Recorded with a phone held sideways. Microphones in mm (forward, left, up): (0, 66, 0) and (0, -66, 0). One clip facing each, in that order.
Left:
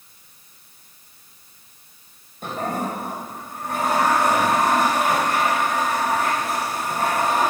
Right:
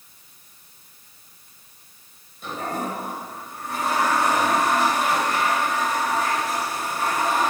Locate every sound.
2.4 s a toilet flushing: 55° left (ahead or behind), 2.5 m